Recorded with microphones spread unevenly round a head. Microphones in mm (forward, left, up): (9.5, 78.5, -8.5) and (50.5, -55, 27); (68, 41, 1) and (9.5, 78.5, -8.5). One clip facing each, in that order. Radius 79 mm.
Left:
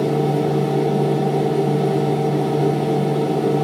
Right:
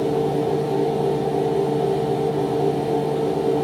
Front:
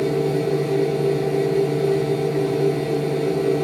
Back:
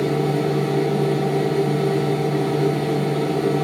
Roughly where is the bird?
I don't hear a bird.